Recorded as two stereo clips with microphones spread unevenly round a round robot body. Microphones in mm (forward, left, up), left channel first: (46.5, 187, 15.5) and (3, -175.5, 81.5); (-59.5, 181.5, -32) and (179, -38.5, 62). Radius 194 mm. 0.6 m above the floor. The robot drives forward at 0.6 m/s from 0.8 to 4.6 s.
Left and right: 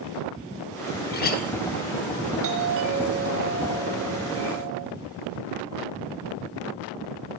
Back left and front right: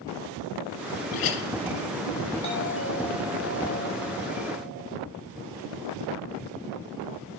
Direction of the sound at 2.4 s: 155° right.